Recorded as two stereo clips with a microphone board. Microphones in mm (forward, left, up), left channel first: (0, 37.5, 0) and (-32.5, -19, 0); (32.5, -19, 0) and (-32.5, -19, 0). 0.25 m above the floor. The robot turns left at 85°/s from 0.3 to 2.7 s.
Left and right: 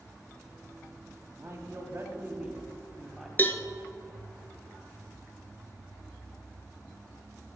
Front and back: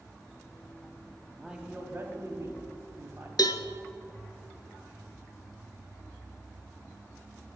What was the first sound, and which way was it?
A man speaking, 95° right.